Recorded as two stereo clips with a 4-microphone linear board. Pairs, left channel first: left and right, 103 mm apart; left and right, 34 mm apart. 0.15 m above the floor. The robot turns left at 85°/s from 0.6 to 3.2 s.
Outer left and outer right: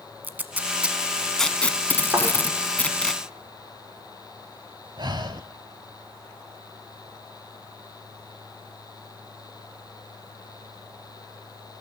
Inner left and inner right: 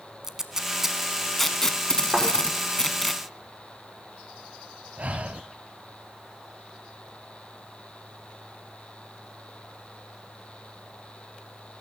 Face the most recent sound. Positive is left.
turn(degrees=-50)  # may be behind; listen again after turning